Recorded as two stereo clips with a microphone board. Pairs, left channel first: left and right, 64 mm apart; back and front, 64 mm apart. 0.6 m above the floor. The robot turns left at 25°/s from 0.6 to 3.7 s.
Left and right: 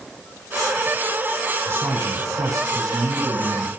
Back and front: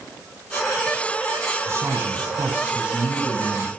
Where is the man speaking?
45° right, 5 m; by 3.7 s 100° right, 5 m.